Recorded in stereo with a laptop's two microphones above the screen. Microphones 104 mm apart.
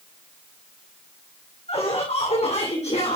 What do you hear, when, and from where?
1.7 s laughter: 75° left (ahead or behind), 3 m; by 3.2 s 80° left, 3 m